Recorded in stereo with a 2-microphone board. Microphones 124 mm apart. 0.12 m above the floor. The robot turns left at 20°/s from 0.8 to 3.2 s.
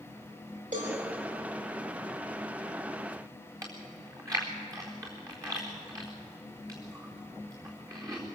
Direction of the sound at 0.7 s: 85° right.